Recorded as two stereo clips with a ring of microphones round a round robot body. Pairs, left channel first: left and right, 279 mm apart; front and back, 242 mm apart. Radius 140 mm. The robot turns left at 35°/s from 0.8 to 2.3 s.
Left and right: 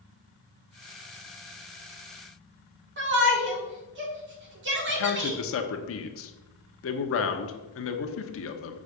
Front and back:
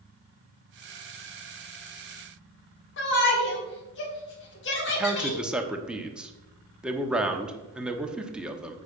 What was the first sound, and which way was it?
A shout, 45° right.